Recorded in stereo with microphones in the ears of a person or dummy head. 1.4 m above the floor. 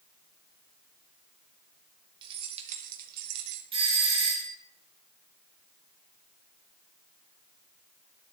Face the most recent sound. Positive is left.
turn(degrees=-25)  # may be behind; listen again after turning